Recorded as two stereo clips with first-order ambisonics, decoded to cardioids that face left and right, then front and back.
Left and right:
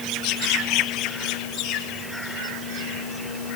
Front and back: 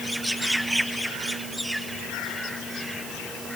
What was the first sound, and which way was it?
Only background noise.